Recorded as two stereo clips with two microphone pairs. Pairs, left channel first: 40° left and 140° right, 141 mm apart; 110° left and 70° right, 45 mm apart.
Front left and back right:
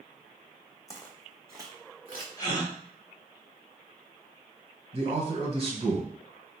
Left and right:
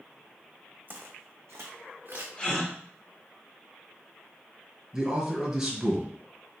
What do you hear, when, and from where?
0.9 s footsteps: 25° right, 1.0 m; by 2.3 s 95° right, 1.7 m
2.4 s a gasp: 60° left, 1.3 m
4.9 s a man speaking: 140° right, 1.6 m